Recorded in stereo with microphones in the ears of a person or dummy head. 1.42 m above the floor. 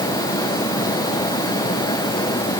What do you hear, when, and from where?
Only background noise.